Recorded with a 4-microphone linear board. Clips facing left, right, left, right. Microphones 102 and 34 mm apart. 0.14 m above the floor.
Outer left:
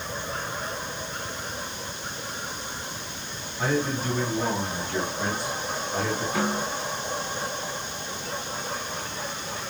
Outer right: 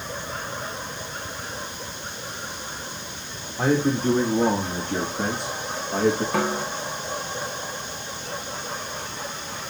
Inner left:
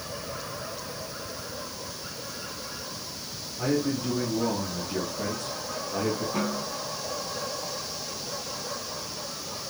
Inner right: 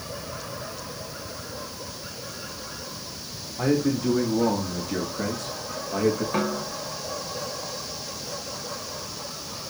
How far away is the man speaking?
About 6 m.